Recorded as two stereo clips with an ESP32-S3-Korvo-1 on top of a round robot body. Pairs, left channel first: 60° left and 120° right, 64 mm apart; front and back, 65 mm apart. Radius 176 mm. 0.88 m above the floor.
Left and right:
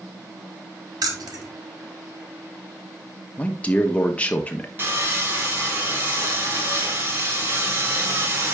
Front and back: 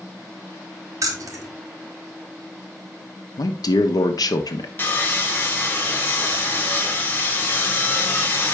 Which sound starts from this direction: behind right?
Keys jangling, at 1.0 s.